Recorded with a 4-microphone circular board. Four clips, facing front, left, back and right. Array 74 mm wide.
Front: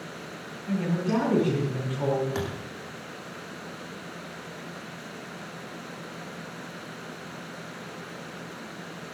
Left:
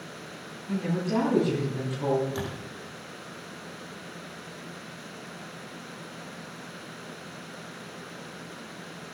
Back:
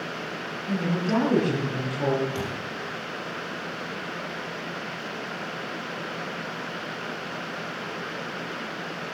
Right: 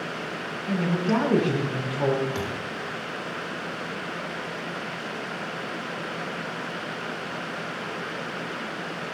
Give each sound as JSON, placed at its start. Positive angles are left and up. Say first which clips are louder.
{"t": 0.7, "sound": "a woman speaking", "louder": "right 4 dB, back 1 dB", "azimuth_deg": -90, "distance_m": 7.5}
{"t": 2.4, "sound": "a thud", "louder": "right 4 dB, back 1 dB", "azimuth_deg": -35, "distance_m": 8.5}